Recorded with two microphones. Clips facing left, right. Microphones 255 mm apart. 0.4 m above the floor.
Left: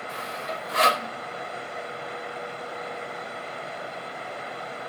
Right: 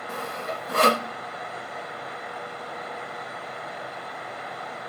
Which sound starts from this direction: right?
Sawing, at 0.1 s.